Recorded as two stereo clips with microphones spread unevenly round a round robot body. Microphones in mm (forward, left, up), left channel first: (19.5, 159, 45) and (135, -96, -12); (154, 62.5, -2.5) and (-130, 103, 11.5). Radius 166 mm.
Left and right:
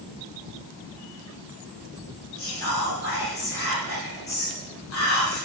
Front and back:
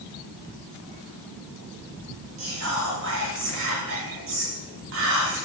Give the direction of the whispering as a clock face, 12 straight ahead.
7 o'clock.